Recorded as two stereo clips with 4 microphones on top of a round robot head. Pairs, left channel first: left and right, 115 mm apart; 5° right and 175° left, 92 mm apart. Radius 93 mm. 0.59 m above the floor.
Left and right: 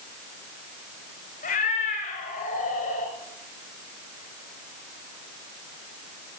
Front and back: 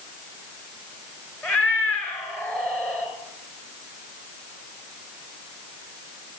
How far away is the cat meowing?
About 4 m.